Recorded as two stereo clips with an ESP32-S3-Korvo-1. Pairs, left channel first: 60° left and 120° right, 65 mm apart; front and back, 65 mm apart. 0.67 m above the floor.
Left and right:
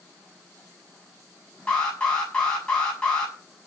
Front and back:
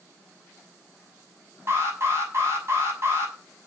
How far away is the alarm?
About 7 m.